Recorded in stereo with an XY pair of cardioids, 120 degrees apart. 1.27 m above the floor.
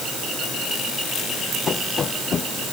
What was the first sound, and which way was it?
Running footsteps, 35° left.